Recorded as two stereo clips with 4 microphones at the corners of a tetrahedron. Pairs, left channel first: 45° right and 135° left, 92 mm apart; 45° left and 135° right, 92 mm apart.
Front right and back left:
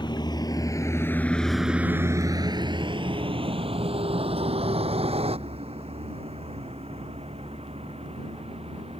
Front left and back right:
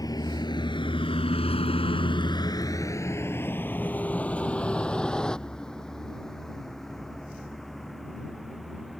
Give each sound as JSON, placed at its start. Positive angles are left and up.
{"t": 0.0, "sound": "a vehicle", "azimuth_deg": -5}